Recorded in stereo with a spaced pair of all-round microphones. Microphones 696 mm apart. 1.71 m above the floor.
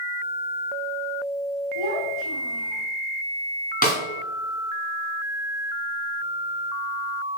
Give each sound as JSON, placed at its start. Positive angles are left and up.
{"t": 1.8, "sound": "a child speaking", "side_deg": -40, "distance_m": 3.0}
{"t": 3.8, "sound": "a snare drum", "side_deg": 10, "distance_m": 4.5}